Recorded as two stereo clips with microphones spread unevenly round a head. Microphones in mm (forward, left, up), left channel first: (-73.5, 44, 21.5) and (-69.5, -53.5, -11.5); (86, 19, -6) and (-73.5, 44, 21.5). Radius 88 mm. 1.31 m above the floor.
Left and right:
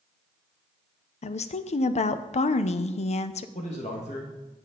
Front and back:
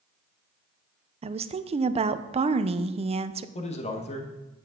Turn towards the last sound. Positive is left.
turn(degrees=45)